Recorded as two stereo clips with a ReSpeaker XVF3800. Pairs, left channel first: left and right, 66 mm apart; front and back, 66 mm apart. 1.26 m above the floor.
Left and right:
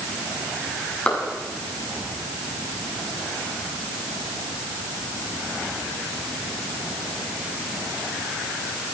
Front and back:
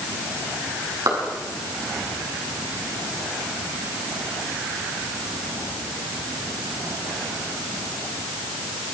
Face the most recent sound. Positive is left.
turn(degrees=160)